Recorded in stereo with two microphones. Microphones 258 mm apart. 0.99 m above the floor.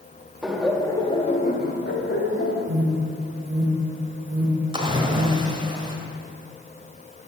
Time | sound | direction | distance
0.4 | laughter | 5° right (ahead or behind) | 1.4 m
2.7 | an alarm | 25° right (ahead or behind) | 3.5 m
4.7 | a splash | 20° right (ahead or behind) | 1.6 m